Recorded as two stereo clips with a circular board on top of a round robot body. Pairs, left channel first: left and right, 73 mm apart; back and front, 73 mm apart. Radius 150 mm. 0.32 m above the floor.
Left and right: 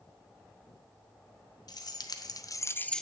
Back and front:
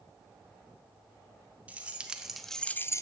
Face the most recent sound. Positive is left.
turn(degrees=175)